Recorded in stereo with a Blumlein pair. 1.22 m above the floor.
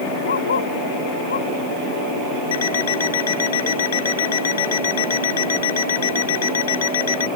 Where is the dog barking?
65° left.